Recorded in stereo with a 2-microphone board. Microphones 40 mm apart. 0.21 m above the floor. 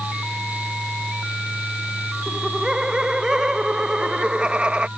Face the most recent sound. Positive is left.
turn(degrees=-25)  # may be behind; listen again after turning